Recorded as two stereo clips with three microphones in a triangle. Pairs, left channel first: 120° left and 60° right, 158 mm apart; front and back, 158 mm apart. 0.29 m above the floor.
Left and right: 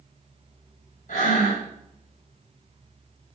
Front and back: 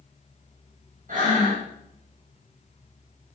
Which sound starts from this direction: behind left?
Breathing, at 1.1 s.